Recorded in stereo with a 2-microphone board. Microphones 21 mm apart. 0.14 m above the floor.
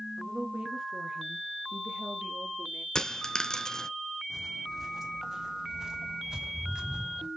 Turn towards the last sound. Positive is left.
turn(degrees=-40)  # may be behind; listen again after turning